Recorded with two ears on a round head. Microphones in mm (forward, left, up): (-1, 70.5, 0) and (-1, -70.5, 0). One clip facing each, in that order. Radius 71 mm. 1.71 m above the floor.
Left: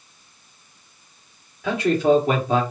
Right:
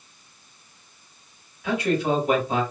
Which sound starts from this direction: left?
A man speaking, at 1.6 s.